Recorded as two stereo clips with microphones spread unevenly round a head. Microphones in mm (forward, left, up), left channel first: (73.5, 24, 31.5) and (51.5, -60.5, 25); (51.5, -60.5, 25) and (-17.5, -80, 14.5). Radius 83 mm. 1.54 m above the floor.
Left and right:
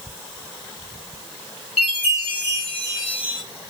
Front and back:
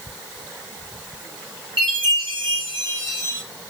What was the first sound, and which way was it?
A chime, 130° left.